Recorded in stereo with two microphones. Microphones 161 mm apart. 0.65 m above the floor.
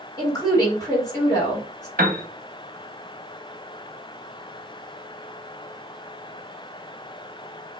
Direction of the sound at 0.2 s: 20° left (ahead or behind).